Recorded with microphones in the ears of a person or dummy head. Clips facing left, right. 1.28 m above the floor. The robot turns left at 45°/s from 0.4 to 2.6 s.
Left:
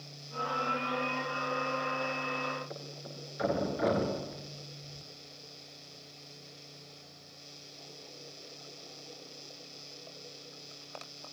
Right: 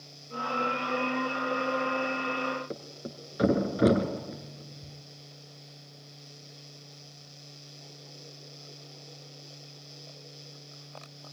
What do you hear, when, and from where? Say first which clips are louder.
2.7 s a thud: right 5 dB; 60° right (ahead or behind), 2.5 m